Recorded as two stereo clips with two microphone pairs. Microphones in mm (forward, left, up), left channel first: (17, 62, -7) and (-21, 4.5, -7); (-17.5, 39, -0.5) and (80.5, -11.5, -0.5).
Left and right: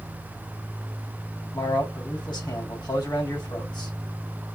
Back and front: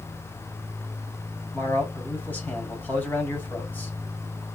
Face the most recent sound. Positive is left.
turn(degrees=80)